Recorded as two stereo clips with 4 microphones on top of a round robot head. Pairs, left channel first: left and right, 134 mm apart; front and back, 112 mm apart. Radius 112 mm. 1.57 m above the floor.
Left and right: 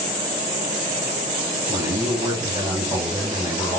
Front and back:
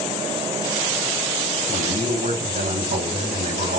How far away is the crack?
No crack in this recording.